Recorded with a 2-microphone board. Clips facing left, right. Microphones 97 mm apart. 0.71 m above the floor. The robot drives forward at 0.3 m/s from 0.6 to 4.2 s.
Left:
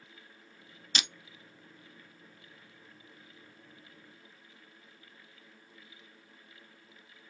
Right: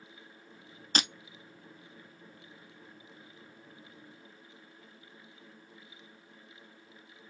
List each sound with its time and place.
0.9 s breaking glass: 40° right (ahead or behind), 0.6 m; by 1.1 s 45° right (ahead or behind), 0.5 m